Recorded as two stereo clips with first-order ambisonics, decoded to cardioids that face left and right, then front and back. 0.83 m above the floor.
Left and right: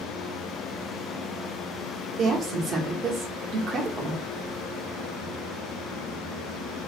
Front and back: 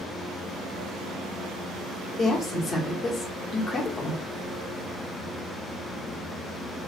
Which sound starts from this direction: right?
A woman speaking, at 2.2 s.